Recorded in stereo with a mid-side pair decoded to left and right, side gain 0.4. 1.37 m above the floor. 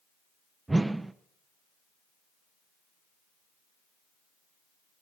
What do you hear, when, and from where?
0.7 s a whoosh: 20° right, 1.0 m